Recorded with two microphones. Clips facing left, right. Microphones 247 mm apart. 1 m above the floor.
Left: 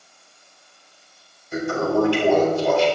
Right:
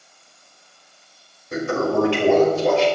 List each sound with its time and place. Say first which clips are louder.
1.5 s a toilet flushing: right 1 dB; 80° right, 4.5 m